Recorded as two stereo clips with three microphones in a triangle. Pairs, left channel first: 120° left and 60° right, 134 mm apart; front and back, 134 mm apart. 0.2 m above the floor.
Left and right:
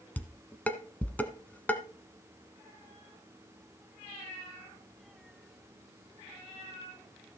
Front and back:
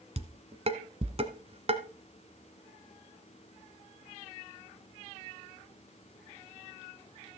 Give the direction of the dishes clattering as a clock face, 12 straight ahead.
6 o'clock.